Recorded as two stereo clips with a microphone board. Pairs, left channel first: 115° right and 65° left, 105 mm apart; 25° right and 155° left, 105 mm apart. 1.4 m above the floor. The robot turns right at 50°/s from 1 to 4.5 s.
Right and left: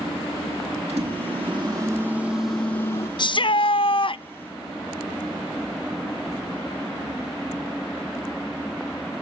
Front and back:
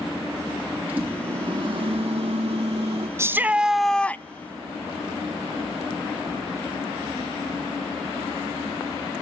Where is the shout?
145° right, 0.5 m; by 4.2 s 90° right, 0.5 m.